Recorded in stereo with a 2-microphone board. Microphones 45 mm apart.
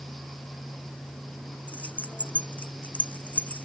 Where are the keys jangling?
35° left (ahead or behind).